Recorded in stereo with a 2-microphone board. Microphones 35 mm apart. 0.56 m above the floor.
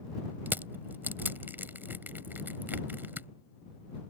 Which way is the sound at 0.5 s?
75° right (ahead or behind).